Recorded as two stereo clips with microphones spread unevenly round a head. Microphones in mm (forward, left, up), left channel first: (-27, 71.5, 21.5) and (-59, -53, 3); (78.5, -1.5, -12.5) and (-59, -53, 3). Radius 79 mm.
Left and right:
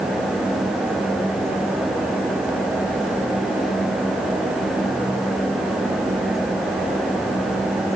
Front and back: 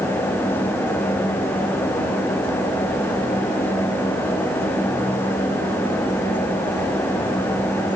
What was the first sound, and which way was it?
Only background noise.